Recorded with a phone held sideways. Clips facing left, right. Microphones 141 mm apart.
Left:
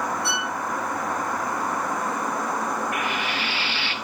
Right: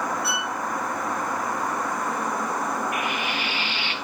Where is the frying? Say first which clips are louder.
Even; 15° right (ahead or behind), 2.5 m.